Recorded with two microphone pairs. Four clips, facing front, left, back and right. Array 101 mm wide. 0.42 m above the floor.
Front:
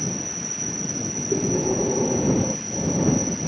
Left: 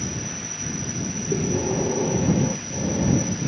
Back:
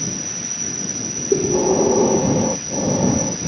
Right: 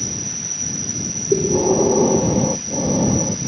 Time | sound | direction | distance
0.0 | an insect | 170° right | ?
1.3 | breathing | 155° right | ?